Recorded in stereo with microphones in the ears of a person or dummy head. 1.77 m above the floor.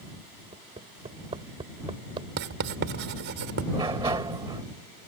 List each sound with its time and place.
0.5 s hammering: 30° right (ahead or behind)
2.4 s writing: 60° right (ahead or behind)
3.7 s a sliding door: 15° right (ahead or behind)